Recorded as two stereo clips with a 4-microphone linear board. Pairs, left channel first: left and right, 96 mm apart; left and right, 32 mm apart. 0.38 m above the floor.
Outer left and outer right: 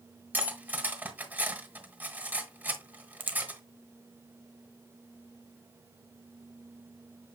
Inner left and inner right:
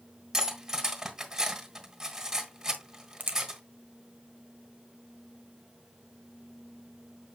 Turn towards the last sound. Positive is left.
turn(degrees=-65)  # may be behind; listen again after turning